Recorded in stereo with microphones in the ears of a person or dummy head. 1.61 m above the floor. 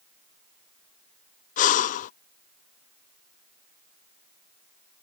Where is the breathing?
40° left (ahead or behind).